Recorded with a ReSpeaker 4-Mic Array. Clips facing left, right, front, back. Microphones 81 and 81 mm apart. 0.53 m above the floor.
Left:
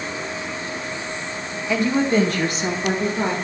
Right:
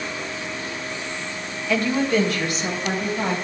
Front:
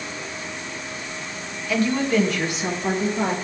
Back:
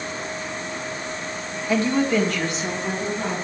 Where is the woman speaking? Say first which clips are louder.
Left 2 dB, back 1 dB; 155° left, 1.1 m; by 3.3 s 50° left, 1.8 m.